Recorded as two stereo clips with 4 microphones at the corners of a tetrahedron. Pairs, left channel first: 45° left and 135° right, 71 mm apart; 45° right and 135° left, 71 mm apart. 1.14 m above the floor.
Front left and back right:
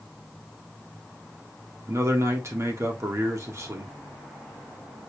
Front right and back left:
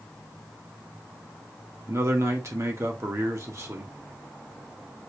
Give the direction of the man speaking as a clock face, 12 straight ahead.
6 o'clock.